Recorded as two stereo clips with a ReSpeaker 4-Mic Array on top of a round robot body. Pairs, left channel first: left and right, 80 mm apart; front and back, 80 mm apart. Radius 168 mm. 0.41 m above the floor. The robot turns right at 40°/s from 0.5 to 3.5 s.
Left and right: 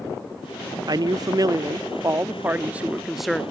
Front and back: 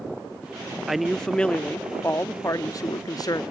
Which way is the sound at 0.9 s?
95° right.